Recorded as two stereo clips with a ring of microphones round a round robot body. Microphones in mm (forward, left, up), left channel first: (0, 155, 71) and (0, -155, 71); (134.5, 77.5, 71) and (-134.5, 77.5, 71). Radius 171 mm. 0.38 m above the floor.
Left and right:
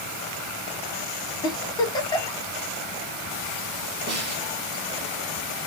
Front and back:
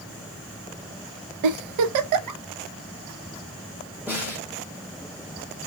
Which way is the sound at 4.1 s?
100° right.